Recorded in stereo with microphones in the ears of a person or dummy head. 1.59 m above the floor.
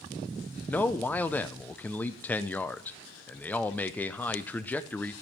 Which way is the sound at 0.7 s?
5° left (ahead or behind).